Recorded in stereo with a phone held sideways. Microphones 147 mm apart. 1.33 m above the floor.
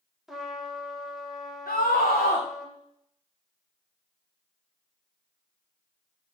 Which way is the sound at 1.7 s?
90° left.